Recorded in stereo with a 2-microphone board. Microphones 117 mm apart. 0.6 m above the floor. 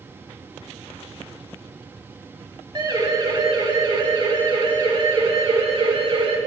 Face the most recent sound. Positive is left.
turn(degrees=-55)  # may be behind; listen again after turning